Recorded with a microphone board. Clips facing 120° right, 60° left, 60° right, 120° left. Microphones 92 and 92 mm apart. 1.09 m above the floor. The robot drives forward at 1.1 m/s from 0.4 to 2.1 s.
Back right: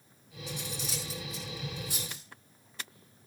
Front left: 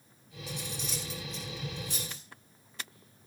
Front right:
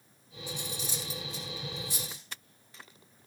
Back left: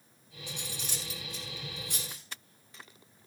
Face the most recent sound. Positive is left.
turn(degrees=155)